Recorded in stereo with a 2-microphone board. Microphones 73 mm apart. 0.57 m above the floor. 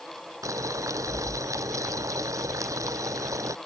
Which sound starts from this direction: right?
Boiling, at 0.4 s.